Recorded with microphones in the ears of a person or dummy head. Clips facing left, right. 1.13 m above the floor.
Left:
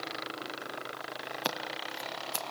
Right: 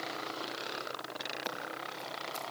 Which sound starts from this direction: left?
Scissors, at 1.4 s.